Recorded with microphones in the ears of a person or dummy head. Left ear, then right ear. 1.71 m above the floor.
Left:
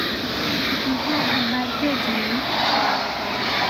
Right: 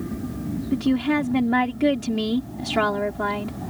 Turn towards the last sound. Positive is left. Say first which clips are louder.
# left 1 dB
turn(degrees=-20)  # may be behind; listen again after turning